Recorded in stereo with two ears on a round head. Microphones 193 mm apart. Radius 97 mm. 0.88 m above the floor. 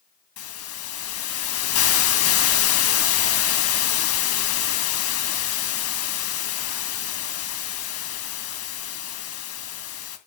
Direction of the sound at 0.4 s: 70° left (ahead or behind).